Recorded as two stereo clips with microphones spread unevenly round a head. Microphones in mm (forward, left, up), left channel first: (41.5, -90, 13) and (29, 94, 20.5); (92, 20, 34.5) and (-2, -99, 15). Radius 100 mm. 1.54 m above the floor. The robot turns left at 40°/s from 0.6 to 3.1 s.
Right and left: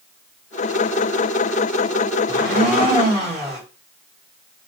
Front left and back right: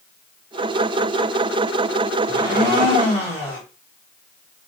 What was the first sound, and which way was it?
A blender, 125° right.